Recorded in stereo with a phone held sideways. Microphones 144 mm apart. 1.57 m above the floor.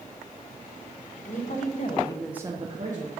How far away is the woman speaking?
About 1.6 m.